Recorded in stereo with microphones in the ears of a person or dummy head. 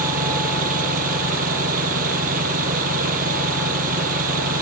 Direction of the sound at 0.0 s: 45° right (ahead or behind).